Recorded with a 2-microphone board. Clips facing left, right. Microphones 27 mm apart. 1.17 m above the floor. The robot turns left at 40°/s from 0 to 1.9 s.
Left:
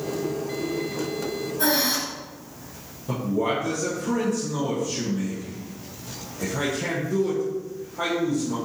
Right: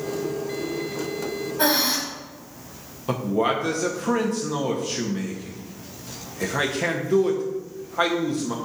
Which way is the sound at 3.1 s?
60° right (ahead or behind).